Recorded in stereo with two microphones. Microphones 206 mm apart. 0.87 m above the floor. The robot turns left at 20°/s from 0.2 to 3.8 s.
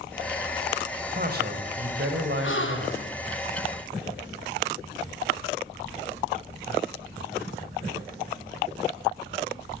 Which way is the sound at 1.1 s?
45° right.